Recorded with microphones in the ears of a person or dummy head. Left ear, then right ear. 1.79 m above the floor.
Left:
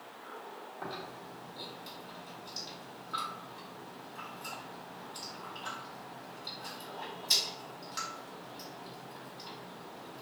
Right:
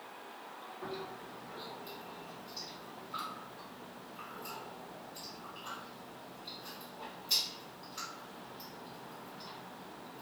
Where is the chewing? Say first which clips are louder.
Left 1 dB; 55° left (ahead or behind), 1.4 m.